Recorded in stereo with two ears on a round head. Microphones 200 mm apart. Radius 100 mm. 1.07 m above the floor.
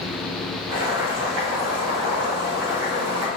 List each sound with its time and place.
0.7 s boiling: 55° right (ahead or behind), 1.8 m